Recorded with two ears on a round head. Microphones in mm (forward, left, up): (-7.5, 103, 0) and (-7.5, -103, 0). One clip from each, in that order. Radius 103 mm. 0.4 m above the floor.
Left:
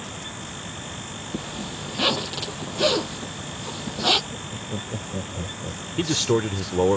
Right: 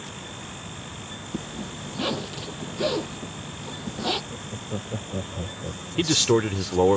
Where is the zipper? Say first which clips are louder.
Left 3 dB; 45° left (ahead or behind).